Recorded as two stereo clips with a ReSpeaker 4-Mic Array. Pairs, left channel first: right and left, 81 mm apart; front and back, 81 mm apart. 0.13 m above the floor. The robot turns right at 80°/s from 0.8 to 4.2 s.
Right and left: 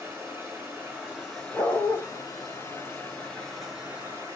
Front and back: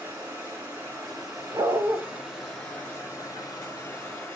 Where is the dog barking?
160° right, 2.5 m; by 2.0 s 125° right, 2.5 m.